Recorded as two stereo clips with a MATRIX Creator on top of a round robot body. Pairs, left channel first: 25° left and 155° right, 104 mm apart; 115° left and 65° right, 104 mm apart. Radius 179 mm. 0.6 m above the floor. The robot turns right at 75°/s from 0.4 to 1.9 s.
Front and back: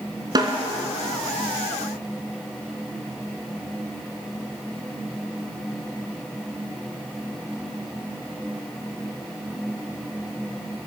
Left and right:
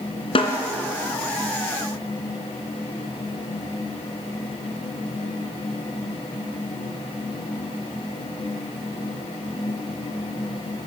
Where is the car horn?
No car horn in this recording.